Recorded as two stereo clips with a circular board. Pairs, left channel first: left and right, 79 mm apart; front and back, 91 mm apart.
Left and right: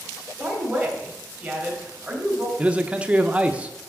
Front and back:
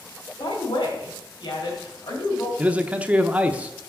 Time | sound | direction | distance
0.4 | a woman speaking | 15° right | 3 m
2.6 | a man speaking | 135° right | 0.7 m